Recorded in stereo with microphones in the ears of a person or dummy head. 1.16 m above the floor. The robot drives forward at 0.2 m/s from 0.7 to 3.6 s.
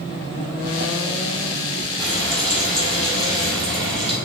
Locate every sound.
2.0 s frying: 20° right (ahead or behind), 1.9 m; by 4.2 s 25° right (ahead or behind), 1.6 m